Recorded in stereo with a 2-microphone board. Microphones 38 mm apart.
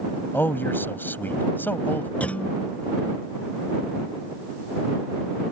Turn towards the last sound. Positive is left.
turn(degrees=40)  # may be behind; listen again after turning